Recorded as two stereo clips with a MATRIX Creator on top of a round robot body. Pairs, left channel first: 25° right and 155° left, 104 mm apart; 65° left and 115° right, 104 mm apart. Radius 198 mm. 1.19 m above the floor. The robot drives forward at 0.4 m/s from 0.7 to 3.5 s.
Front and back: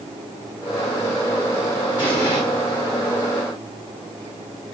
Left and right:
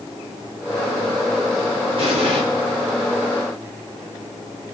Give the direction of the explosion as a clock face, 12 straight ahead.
2 o'clock.